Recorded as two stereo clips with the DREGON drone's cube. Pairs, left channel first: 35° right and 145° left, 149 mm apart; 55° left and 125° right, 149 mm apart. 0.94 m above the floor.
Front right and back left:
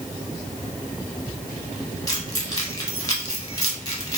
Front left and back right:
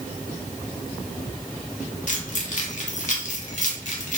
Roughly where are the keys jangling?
Ahead left.